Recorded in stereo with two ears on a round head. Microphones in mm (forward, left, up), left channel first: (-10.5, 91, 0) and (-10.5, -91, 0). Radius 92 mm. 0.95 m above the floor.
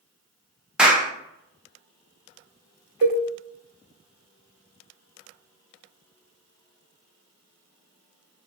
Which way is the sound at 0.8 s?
5° right (ahead or behind).